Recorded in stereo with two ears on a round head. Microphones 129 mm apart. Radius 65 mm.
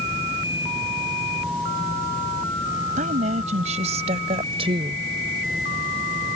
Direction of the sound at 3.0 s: 55° right (ahead or behind).